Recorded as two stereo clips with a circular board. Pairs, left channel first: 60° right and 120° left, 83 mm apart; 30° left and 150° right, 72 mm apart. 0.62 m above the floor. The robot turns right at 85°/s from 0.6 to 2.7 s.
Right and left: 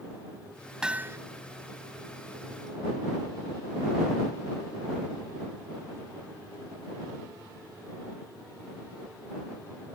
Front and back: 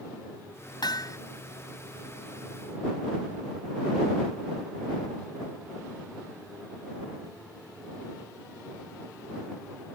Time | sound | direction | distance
0.8 | hammering | 35° left | ?